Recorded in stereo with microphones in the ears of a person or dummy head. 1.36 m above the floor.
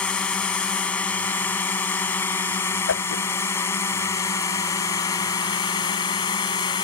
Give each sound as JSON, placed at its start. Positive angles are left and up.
{"t": 0.0, "sound": "a drone", "side_deg": 5}
{"t": 2.9, "sound": "a whoosh", "side_deg": 65}